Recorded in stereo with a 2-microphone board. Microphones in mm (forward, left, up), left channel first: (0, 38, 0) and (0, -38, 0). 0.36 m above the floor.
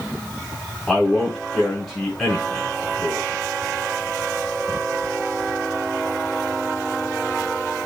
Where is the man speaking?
10° left (ahead or behind), 3.5 m.